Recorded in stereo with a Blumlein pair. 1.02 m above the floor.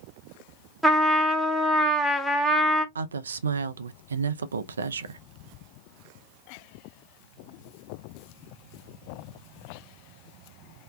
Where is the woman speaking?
70° right, 0.5 m.